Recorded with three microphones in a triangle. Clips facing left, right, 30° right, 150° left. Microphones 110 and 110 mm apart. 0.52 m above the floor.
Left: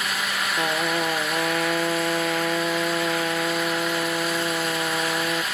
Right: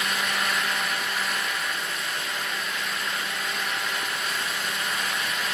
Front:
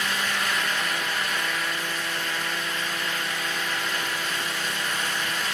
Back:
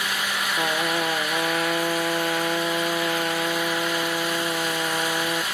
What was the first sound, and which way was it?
A trumpet, 110° left.